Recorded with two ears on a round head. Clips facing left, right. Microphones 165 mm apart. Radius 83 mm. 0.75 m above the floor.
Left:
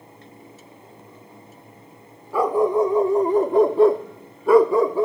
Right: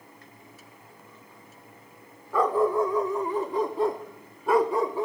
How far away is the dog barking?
About 1.1 m.